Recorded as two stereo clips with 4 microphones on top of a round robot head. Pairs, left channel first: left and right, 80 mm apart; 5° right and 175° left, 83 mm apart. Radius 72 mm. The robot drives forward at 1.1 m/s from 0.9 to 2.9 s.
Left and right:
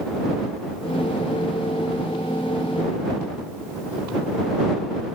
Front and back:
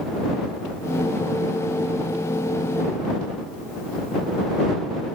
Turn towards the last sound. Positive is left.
No sound to turn to.